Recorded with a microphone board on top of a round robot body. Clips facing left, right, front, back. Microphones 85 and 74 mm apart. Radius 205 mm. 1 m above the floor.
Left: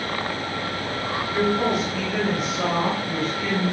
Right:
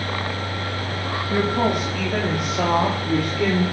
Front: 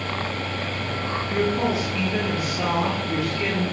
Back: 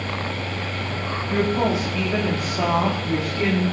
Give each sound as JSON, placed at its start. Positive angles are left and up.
{"t": 1.3, "sound": "a woman speaking", "azimuth_deg": -130, "distance_m": 3.5}